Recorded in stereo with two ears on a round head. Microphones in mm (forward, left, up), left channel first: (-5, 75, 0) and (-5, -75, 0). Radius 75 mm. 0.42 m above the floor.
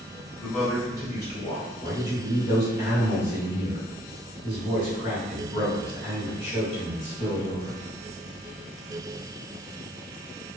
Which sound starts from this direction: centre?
A man speaking, at 0.4 s.